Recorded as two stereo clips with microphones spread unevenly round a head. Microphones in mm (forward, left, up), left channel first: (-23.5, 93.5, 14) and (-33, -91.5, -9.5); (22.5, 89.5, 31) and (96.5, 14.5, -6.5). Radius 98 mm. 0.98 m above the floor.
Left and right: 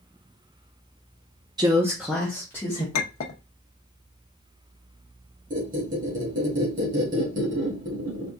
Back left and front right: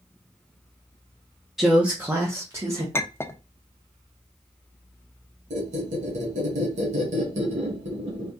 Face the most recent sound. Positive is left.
turn(degrees=-40)